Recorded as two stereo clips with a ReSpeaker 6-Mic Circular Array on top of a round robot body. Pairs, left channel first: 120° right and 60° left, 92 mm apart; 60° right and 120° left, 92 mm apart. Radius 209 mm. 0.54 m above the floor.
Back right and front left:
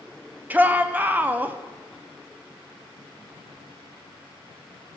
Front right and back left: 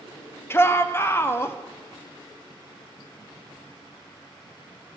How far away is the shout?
About 1.3 m.